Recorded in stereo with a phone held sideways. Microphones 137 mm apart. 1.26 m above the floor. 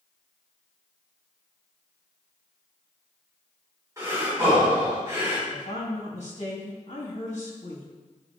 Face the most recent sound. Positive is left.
turn(degrees=55)  # may be behind; listen again after turning